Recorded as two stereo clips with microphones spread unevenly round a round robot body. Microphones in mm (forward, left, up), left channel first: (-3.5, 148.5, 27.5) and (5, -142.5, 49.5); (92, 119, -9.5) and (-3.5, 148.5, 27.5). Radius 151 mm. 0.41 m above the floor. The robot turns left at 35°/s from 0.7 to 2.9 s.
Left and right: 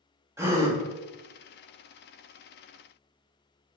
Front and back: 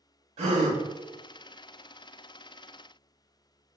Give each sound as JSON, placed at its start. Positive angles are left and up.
{"t": 0.4, "sound": "a gasp", "azimuth_deg": -170, "distance_m": 0.6}